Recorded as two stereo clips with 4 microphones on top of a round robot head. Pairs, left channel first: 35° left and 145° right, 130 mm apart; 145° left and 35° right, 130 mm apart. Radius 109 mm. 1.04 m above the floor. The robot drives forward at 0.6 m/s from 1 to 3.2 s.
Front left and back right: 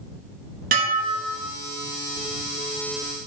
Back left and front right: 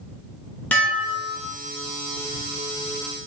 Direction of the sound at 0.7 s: 135° right.